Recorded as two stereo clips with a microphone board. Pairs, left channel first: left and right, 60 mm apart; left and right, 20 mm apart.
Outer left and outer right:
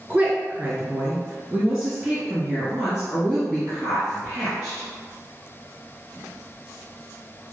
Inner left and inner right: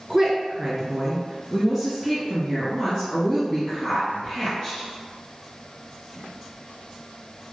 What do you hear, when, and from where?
0.1 s a woman speaking: 20° right (ahead or behind), 1.7 m; by 4.9 s 5° left (ahead or behind), 3 m